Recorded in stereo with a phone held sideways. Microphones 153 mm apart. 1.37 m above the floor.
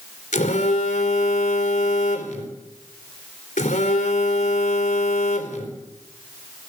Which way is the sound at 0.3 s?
60° left (ahead or behind).